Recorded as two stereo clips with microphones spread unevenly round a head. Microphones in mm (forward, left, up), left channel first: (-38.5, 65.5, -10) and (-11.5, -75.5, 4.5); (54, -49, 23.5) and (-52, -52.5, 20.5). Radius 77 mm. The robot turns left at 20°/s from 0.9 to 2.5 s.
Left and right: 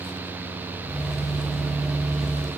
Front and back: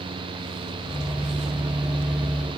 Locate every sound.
Only background noise.